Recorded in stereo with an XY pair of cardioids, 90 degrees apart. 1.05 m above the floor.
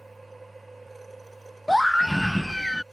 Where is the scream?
5° left.